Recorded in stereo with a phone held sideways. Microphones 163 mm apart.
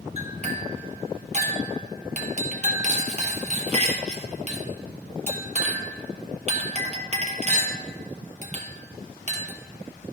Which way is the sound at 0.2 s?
40° right (ahead or behind).